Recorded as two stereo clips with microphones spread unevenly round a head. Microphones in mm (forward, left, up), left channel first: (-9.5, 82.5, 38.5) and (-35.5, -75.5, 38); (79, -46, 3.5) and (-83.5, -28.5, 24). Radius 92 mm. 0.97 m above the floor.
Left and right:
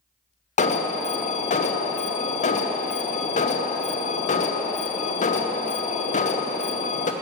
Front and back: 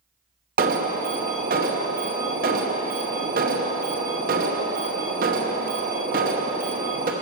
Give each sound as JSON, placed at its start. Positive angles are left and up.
{"t": 0.6, "sound": "an alarm", "azimuth_deg": 125, "distance_m": 0.8}